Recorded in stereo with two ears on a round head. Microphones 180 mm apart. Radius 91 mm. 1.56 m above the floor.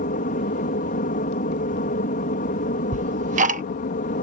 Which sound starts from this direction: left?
An aircraft, at 0.0 s.